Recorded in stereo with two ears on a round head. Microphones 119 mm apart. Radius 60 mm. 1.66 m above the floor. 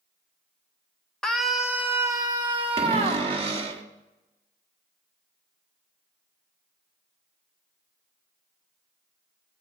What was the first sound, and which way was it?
A scream, 5° left (ahead or behind).